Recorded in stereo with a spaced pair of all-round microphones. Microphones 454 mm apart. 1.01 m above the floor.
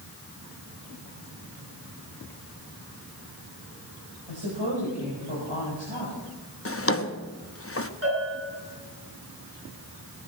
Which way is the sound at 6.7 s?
30° left (ahead or behind).